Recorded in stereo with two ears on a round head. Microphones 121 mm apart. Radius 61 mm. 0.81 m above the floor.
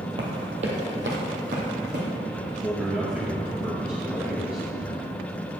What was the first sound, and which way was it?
Running footsteps, 35° right (ahead or behind).